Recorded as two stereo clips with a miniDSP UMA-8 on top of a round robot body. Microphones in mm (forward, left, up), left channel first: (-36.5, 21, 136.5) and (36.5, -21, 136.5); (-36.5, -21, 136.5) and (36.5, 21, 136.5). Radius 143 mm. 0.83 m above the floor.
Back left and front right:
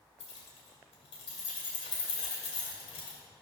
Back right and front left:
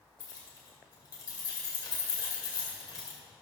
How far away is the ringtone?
I don't hear a ringtone.